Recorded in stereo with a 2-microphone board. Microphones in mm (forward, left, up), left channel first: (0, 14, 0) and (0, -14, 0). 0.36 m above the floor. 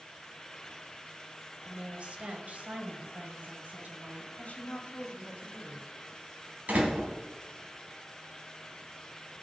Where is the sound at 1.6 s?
40° right (ahead or behind), 1.3 m; by 4.3 s 70° right (ahead or behind), 2.5 m.